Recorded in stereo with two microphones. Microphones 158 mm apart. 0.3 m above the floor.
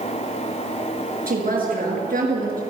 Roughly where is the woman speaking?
Right.